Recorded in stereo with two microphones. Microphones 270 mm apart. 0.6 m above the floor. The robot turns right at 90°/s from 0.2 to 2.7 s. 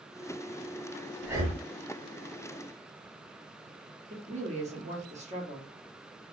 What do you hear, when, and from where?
1.2 s breathing: 175° right, 0.7 m; by 1.6 s 140° right, 0.7 m
4.1 s a woman speaking: 25° right (ahead or behind), 0.9 m